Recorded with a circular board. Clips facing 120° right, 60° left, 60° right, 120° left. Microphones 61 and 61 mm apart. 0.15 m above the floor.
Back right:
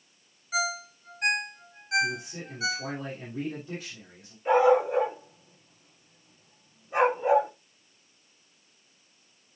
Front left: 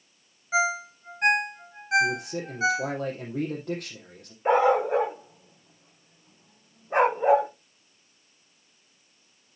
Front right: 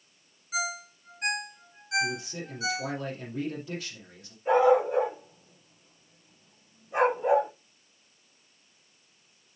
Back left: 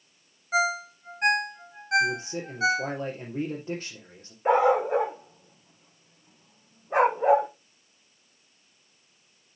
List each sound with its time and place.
0.5 s a ringtone: 105° left, 0.5 m
2.0 s a man speaking: 75° left, 4 m
4.5 s a dog barking: 100° left, 5.5 m